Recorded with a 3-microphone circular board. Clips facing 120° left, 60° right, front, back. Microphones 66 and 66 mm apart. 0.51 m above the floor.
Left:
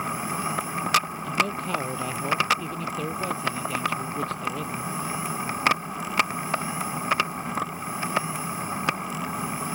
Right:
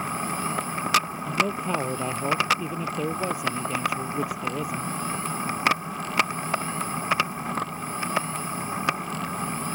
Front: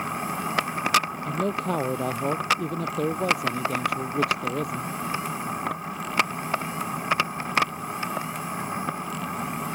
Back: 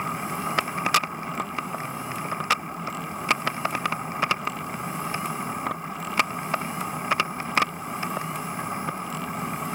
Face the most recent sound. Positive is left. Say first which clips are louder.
# right 1 dB, front 4 dB
turn(degrees=15)